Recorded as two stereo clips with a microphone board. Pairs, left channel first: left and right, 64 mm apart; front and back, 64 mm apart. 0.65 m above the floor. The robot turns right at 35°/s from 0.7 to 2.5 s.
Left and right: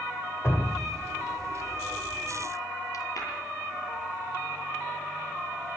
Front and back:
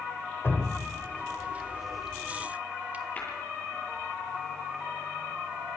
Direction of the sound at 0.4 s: 50° left.